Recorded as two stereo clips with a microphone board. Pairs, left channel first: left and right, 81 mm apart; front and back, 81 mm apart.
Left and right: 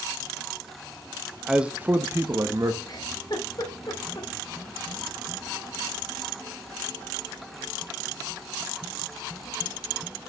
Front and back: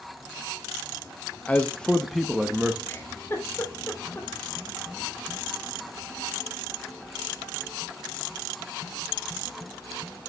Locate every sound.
1.5 s a man speaking: 20° right, 0.7 m; by 2.8 s 105° right, 1.0 m
2.9 s a giggle: 60° left, 2 m